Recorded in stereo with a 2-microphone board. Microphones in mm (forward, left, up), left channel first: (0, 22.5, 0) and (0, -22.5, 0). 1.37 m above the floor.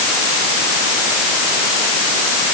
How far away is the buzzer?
No buzzer in this recording.